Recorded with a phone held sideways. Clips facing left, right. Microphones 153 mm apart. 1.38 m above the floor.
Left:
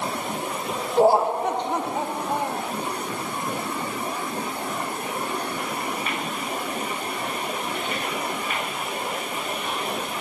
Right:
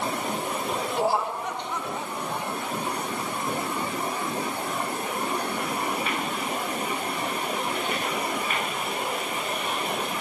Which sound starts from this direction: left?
Laughter, at 1.0 s.